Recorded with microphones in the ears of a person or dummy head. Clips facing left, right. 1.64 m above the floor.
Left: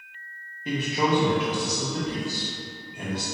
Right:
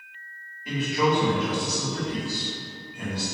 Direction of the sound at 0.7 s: 25° left (ahead or behind).